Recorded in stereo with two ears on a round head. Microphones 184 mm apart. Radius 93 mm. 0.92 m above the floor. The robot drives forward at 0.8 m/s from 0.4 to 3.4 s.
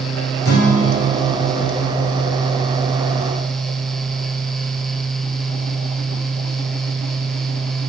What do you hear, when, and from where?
0.5 s a guitar: 50° left (ahead or behind), 1.7 m; by 2.1 s 80° left, 1.4 m